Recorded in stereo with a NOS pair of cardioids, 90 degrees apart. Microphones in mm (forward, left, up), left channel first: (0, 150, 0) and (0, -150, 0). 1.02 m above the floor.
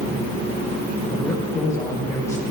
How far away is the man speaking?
About 5.5 m.